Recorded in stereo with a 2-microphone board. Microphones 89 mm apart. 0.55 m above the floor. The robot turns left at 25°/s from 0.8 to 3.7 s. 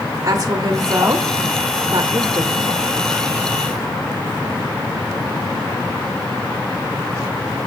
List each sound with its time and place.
0.2 s a woman speaking: 40° right (ahead or behind), 1.1 m; by 2.9 s 35° right (ahead or behind), 1.1 m